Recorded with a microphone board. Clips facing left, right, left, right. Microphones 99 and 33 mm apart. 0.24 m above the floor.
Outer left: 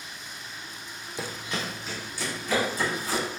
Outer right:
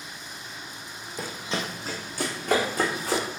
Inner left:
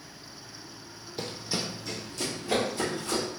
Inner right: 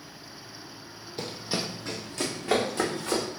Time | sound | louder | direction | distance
1.2 | running footsteps | outer right 2 dB, inner right 1 dB | 5° left (ahead or behind) | 0.5 m